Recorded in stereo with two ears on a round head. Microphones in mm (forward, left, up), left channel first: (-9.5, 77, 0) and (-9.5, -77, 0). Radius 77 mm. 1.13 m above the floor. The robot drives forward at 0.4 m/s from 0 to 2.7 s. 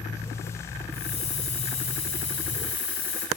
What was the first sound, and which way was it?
A hiss, 40° left (ahead or behind).